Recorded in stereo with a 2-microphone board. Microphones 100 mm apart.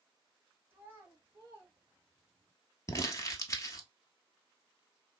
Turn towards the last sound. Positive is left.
turn(degrees=35)  # may be behind; listen again after turning